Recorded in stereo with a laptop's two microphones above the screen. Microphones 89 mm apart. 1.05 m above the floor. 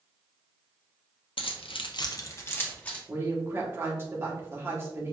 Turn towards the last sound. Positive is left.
turn(degrees=-25)  # may be behind; listen again after turning